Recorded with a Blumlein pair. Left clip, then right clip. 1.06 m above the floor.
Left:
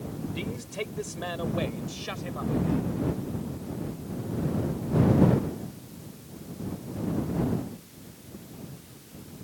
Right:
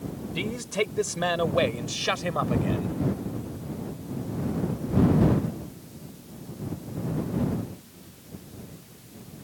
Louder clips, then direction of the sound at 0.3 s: Right 9 dB; 70° right.